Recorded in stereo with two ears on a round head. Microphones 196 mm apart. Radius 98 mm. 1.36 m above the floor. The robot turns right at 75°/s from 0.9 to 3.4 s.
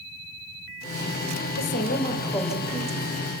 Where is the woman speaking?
110° left, 2 m; by 3.1 s 130° right, 2 m.